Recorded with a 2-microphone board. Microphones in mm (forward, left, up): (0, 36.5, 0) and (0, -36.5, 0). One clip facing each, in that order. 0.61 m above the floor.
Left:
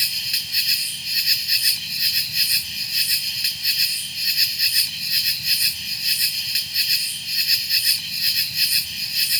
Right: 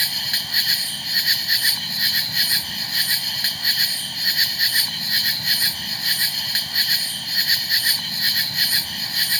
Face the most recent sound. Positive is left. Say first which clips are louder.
# right 4 dB
turn(degrees=-55)  # may be behind; listen again after turning